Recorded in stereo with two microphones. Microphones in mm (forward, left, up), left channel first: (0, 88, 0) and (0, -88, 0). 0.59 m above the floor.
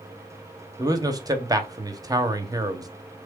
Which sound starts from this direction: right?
A man speaking, at 0.8 s.